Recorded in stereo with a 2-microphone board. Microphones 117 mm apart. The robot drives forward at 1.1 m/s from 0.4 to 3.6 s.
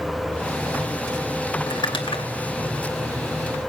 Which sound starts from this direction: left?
Crumpling, at 1.7 s.